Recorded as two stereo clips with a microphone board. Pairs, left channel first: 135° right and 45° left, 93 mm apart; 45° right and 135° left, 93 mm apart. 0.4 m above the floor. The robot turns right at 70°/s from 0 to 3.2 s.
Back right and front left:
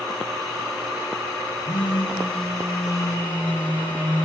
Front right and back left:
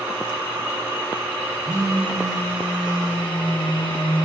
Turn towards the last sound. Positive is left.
turn(degrees=-65)